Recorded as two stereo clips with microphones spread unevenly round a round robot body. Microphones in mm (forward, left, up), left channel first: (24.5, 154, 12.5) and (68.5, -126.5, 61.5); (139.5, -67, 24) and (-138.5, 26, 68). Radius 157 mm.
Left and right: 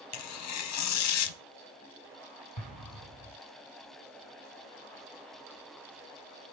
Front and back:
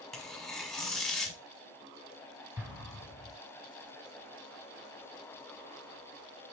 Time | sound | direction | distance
0.1 | tearing paper | 80° left | 0.5 m
2.6 | an explosion | 70° left | 5 m